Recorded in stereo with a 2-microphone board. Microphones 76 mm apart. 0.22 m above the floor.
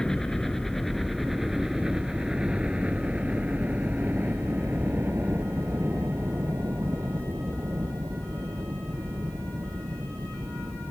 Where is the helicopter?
10° left (ahead or behind); by 10.9 s 45° right (ahead or behind).